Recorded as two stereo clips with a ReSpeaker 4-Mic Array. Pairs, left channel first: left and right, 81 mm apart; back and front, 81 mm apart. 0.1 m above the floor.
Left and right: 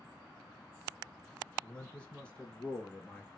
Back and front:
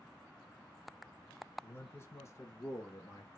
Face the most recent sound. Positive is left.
turn(degrees=160)